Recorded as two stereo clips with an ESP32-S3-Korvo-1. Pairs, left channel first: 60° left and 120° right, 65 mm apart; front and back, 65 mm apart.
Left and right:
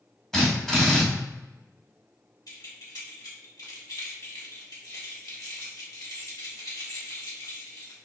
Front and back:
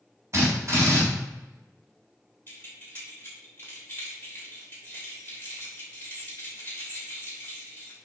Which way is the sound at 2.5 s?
60° left.